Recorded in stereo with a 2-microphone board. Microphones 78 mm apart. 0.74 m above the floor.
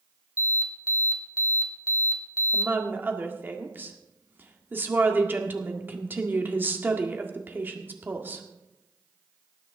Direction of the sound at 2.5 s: 25° right (ahead or behind).